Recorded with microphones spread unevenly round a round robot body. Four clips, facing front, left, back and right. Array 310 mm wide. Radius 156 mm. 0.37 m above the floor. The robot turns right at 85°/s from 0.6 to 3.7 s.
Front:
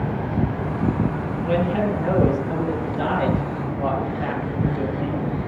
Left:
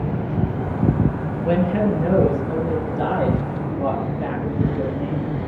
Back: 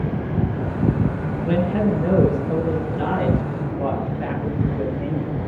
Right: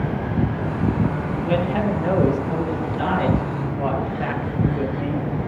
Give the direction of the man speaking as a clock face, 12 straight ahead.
9 o'clock.